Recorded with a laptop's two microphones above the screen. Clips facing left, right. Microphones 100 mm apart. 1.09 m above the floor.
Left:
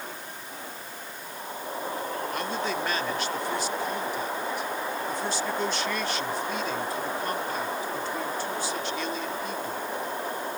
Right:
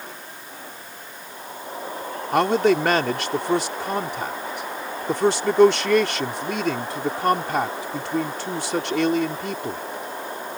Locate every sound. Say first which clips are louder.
2.3 s a man speaking: right 16 dB; 75° right (ahead or behind)